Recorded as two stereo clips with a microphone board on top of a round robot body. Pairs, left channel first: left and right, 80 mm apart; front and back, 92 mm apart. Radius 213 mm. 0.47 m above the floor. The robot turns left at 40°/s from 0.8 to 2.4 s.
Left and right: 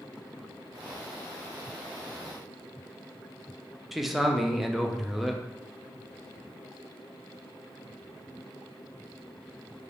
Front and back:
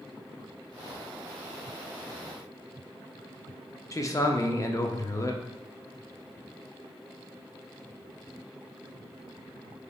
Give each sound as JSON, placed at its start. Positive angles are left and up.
{"t": 3.9, "sound": "a man speaking", "azimuth_deg": -5, "distance_m": 0.7}